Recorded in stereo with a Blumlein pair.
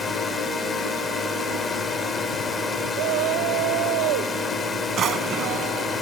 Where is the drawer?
30° right.